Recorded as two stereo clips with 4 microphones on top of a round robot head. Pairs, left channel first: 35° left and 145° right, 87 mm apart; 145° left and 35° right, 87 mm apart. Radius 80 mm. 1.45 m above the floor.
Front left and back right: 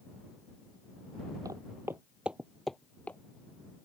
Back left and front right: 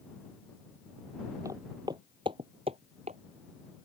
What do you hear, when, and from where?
1.4 s footsteps: 90° right; by 3.2 s 40° right